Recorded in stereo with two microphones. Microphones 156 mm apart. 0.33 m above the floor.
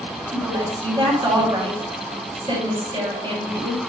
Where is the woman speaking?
30° right (ahead or behind), 2 m.